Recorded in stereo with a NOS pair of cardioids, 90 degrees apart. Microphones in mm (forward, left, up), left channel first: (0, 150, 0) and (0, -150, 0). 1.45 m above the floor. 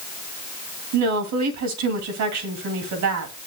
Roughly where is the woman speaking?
Right.